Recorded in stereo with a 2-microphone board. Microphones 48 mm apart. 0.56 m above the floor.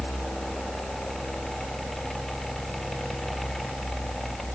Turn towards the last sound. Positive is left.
No sound to turn to.